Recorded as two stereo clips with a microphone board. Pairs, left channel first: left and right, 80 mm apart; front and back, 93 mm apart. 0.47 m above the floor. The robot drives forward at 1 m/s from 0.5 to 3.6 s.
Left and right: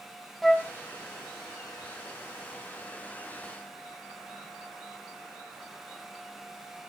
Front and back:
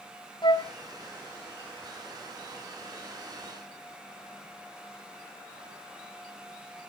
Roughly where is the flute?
Ahead.